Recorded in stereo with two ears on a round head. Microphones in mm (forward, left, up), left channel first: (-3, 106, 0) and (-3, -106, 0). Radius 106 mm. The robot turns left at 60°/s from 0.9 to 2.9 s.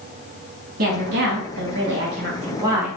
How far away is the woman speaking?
About 1.4 m.